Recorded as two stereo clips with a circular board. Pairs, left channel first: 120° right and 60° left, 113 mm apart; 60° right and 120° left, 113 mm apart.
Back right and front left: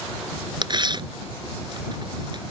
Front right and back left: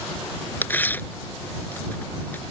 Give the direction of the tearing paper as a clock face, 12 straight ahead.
12 o'clock.